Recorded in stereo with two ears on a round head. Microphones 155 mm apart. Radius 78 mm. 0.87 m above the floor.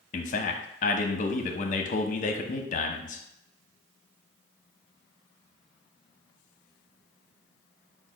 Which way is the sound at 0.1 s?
45° left (ahead or behind).